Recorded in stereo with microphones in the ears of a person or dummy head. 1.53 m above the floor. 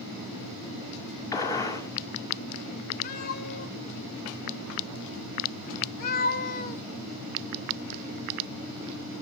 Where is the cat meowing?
50° left (ahead or behind), 1.3 m.